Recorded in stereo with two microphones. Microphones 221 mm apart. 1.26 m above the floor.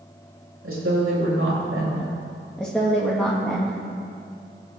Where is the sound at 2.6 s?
5° left (ahead or behind), 2.0 m.